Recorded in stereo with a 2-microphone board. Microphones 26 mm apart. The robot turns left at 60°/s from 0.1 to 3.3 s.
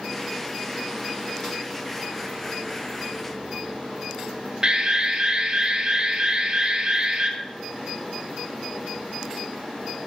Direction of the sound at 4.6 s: 30° right (ahead or behind).